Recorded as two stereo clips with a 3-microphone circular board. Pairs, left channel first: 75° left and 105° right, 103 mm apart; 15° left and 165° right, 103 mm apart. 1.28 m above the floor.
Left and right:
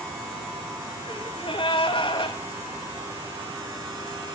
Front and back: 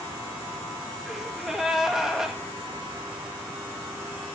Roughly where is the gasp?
Left.